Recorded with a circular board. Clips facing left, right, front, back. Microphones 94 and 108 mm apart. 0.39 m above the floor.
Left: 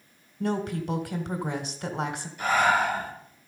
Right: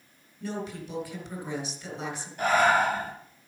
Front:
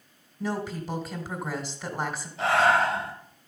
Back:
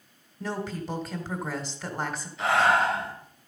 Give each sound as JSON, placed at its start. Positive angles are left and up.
{"t": 0.4, "sound": "a woman speaking", "azimuth_deg": 85, "distance_m": 1.8}
{"t": 2.4, "sound": "breathing", "azimuth_deg": -55, "distance_m": 5.5}